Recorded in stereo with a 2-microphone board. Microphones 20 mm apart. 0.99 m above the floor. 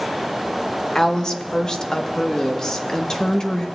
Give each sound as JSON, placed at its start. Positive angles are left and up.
{"t": 0.9, "sound": "a woman speaking", "side_deg": 30, "distance_m": 1.0}